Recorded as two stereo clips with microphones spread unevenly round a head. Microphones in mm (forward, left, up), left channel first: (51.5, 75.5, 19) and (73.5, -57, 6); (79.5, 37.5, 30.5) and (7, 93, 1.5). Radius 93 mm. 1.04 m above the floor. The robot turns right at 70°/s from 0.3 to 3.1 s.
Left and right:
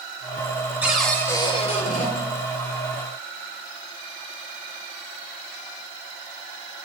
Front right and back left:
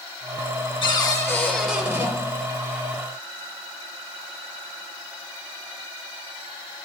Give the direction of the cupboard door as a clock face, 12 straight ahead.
12 o'clock.